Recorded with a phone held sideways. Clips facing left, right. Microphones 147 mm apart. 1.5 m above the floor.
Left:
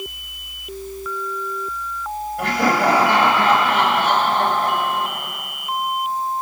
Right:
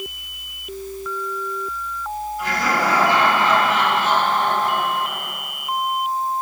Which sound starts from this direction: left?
Laughter, at 2.4 s.